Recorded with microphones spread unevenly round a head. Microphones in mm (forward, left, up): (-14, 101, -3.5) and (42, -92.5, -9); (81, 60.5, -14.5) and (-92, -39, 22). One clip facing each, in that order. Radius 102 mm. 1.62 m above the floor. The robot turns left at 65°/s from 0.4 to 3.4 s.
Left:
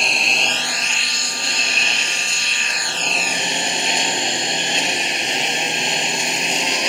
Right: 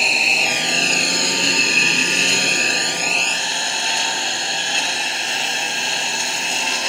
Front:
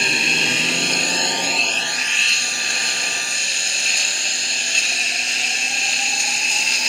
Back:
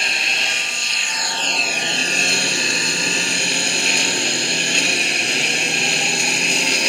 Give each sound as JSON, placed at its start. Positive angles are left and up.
{"t": 0.0, "sound": "a lawn mower", "azimuth_deg": 15}